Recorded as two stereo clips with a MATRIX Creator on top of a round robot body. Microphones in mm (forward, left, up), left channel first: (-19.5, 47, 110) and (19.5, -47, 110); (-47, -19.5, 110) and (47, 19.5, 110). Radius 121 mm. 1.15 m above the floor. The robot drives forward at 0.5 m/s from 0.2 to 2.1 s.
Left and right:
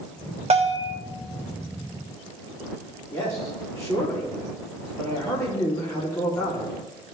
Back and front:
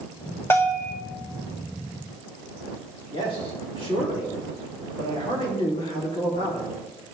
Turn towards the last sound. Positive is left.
turn(degrees=170)